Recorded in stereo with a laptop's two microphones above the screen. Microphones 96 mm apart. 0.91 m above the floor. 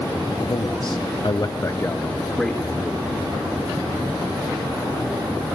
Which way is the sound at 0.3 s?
45° left (ahead or behind).